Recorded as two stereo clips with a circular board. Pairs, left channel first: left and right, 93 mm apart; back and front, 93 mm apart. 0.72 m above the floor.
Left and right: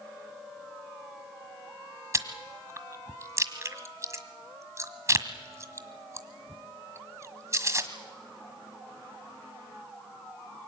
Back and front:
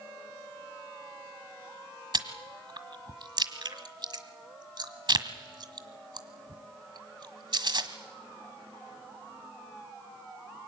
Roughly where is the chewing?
Ahead right.